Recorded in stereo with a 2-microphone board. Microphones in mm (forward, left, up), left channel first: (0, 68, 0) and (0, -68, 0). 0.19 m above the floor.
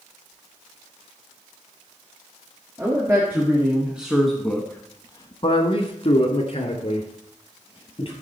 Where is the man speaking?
20° right (ahead or behind), 3 m; by 8.1 s 40° left (ahead or behind), 4 m.